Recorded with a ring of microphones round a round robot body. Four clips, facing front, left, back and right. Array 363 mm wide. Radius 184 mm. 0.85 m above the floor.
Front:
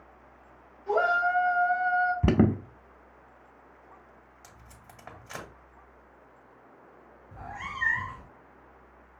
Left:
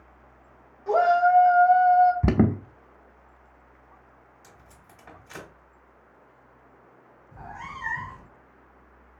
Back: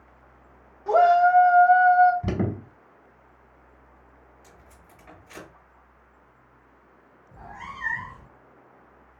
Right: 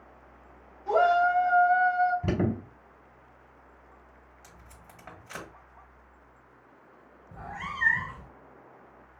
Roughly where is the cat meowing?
Ahead right.